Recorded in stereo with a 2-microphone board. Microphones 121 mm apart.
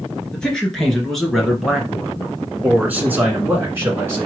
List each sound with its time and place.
0.3 s a man speaking: 5° left (ahead or behind), 2.5 m; by 4.3 s 25° right (ahead or behind), 1.8 m